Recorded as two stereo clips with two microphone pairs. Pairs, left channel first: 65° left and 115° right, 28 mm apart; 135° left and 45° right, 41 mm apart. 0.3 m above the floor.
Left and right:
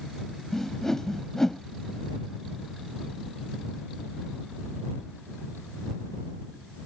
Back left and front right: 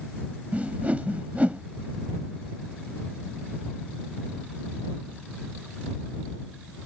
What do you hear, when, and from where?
0.5 s a whoosh: 5° right